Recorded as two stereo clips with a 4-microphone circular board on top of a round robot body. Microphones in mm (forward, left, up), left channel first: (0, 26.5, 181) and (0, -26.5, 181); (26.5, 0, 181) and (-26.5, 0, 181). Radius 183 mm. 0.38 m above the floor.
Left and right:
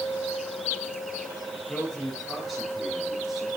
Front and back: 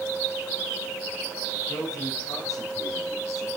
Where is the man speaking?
15° left, 7.5 m; by 3.5 s 5° right, 8.5 m.